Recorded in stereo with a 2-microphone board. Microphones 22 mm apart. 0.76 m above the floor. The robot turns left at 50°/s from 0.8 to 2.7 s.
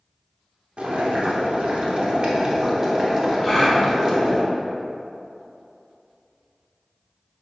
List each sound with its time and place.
0.8 s boiling: 60° right, 0.9 m; by 4.4 s 155° right, 0.9 m
3.4 s a gasp: 5° left (ahead or behind), 1.4 m